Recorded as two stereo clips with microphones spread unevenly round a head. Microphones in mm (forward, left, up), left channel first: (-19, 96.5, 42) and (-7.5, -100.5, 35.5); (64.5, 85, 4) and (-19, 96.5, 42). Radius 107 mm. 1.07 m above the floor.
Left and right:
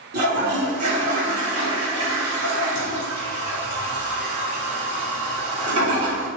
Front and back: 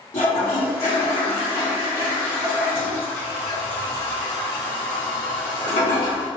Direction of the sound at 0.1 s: 50° right.